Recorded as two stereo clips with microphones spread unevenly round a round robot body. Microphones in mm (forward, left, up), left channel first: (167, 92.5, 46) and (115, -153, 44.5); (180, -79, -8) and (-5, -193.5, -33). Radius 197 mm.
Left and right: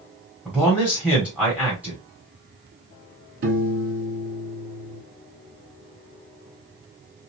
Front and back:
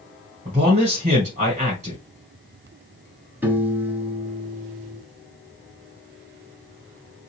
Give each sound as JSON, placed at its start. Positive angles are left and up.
{"t": 0.5, "sound": "a man speaking", "azimuth_deg": 175, "distance_m": 1.0}
{"t": 3.4, "sound": "a piano", "azimuth_deg": -65, "distance_m": 1.1}